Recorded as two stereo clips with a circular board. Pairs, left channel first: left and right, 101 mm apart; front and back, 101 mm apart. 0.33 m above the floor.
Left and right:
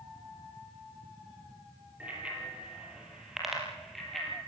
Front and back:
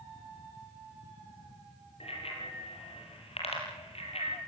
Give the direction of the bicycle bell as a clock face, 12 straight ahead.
12 o'clock.